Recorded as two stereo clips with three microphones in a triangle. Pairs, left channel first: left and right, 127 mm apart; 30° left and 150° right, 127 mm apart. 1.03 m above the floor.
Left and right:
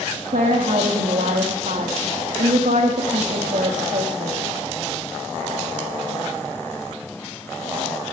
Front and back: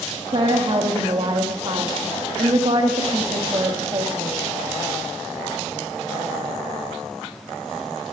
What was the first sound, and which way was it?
A woman speaking, 100° right.